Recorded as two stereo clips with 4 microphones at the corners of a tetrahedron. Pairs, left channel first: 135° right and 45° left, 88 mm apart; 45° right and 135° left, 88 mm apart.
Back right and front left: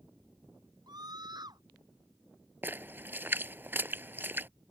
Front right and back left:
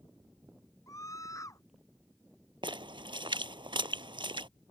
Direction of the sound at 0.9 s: 5° left.